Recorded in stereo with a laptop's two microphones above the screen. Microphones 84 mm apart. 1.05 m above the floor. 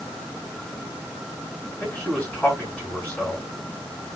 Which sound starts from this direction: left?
A man speaking, at 1.8 s.